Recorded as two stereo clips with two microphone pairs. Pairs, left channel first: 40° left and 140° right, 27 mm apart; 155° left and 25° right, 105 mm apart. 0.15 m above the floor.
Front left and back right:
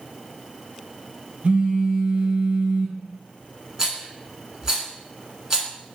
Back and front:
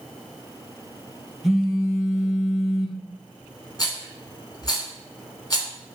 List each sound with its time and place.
1.4 s a phone buzzing: 115° right, 0.7 m
3.8 s a rattle: 165° left, 0.9 m